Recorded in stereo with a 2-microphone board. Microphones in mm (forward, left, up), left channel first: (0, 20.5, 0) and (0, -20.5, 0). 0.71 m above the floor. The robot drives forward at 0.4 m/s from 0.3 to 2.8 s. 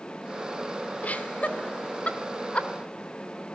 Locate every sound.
1.0 s laughter: 40° left (ahead or behind), 2.0 m; by 2.7 s 30° left (ahead or behind), 2.5 m